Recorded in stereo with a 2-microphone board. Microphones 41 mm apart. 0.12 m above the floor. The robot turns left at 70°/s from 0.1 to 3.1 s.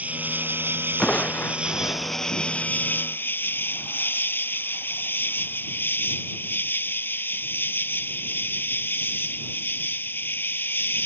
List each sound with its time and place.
0.0 s an insect: 45° right; by 11.1 s 105° left
1.0 s crushing: 165° left; by 2.7 s 45° left